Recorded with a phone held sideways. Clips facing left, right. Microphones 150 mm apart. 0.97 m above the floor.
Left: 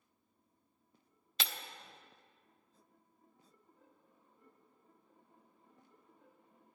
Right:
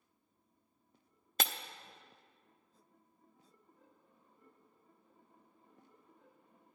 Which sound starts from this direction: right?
Breaking glass, at 1.4 s.